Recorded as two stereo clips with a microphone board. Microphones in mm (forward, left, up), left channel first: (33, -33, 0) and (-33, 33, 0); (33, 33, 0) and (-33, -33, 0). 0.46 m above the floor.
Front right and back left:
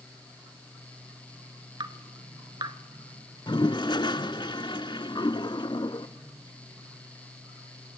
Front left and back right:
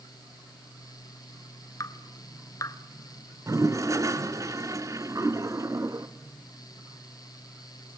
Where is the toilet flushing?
80° right, 1.0 m.